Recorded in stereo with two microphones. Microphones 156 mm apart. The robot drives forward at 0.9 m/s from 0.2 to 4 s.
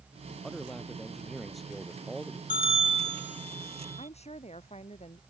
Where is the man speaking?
Centre (ahead or behind).